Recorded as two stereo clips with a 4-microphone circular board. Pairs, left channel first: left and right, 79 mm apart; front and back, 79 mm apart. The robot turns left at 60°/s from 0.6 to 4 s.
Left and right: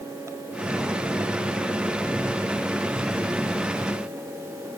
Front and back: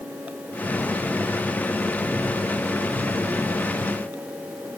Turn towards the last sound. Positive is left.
No sound to turn to.